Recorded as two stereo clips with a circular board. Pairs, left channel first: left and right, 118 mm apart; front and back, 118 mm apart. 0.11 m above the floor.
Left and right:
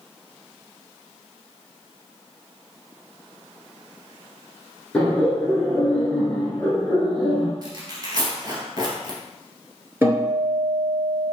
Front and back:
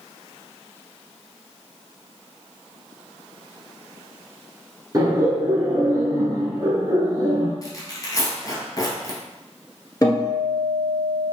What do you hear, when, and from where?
4.9 s laughter: 160° left, 1.4 m
7.6 s tearing paper: 50° right, 1.5 m
10.0 s a guitar: 30° right, 1.7 m